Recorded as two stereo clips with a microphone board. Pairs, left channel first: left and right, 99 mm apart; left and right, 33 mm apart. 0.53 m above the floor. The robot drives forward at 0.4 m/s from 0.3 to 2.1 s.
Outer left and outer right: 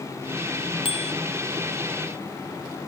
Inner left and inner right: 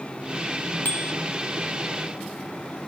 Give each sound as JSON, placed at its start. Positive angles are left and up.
{"t": 0.8, "sound": "a bicycle bell", "side_deg": 65}